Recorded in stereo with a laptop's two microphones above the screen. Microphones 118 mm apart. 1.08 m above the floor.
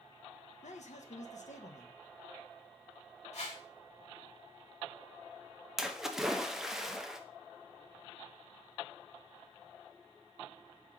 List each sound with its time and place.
0.6 s a man speaking: 80° left, 0.6 m
3.3 s a whoosh: 70° left (ahead or behind), 1.4 m
5.8 s a splash: 5° right (ahead or behind), 0.6 m